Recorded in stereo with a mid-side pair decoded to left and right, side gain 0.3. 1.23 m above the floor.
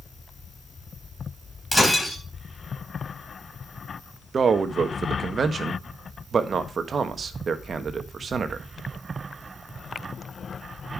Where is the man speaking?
65° right, 1.3 m.